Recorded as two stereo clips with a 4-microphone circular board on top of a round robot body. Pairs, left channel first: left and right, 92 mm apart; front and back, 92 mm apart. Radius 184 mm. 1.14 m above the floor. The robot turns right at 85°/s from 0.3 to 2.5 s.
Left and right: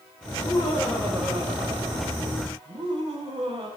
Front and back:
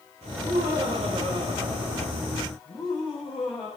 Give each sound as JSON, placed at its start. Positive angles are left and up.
{"t": 0.3, "sound": "laughter", "azimuth_deg": 130, "distance_m": 5.5}